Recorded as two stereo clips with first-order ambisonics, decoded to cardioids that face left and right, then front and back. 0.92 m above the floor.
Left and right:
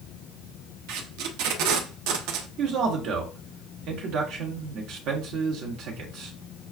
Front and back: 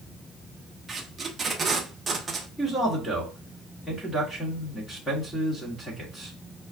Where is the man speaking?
80° right, 1.2 m.